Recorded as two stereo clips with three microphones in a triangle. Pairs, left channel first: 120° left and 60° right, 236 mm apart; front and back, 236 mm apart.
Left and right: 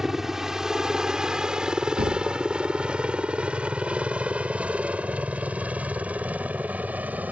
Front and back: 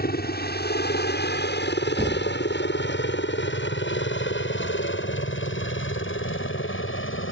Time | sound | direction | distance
0.0 | a helicopter | 30° left | ?
2.0 | a thud | 110° right | ?